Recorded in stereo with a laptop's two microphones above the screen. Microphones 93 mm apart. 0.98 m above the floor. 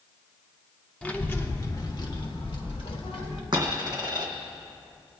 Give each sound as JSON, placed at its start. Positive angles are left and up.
{"t": 1.0, "sound": "a child speaking", "side_deg": 10, "distance_m": 1.3}
{"t": 3.5, "sound": "a dropped coin", "side_deg": -45, "distance_m": 2.5}